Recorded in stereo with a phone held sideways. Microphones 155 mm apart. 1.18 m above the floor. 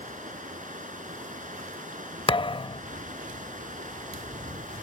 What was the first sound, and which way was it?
Running water, 65° right (ahead or behind).